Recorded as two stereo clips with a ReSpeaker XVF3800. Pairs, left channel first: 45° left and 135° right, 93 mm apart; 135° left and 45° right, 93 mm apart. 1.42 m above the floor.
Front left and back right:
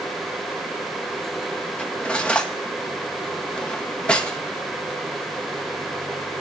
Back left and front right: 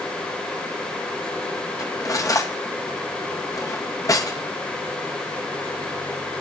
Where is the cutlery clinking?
115° left, 0.8 m.